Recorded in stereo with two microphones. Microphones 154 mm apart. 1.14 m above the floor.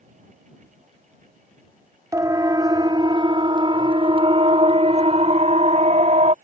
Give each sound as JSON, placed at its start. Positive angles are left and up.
{"t": 2.1, "sound": "a siren", "side_deg": -20}